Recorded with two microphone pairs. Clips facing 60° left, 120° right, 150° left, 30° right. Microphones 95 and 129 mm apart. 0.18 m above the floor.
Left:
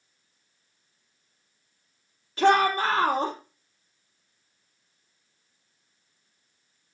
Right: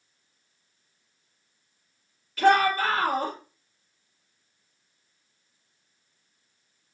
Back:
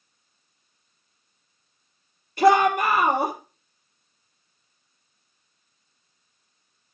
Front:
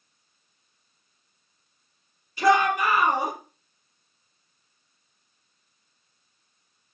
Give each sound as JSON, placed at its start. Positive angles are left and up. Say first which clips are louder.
{"t": 2.4, "sound": "a shout", "louder": "even, back 3 dB", "azimuth_deg": 120, "distance_m": 3.5}